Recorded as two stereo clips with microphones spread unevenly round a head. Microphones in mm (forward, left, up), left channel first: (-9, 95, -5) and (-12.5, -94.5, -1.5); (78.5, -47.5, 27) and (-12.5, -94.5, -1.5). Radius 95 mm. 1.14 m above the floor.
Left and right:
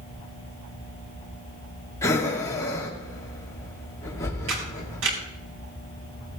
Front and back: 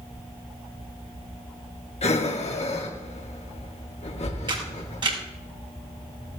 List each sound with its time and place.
2.0 s breathing: 15° left, 2 m
4.5 s a camera shutter: 110° right, 5.5 m